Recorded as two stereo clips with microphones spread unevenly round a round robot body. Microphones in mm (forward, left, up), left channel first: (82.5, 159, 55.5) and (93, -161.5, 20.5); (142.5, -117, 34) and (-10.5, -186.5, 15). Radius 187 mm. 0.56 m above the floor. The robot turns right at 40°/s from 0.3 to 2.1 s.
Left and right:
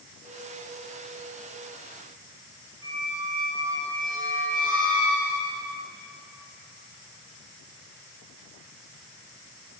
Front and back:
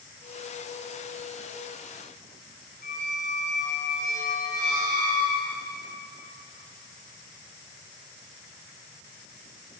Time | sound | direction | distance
2.8 | a squeak | 10° right | 3 m